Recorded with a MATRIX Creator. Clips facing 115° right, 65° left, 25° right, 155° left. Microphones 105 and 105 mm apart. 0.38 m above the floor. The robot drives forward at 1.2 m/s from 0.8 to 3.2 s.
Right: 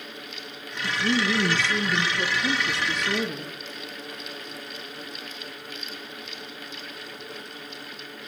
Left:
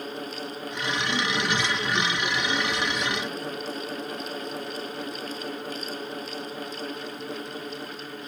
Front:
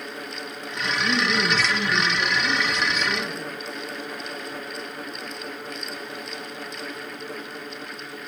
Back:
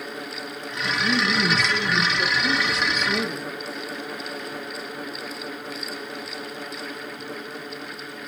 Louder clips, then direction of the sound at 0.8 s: Right 4 dB, back 1 dB; 95° right.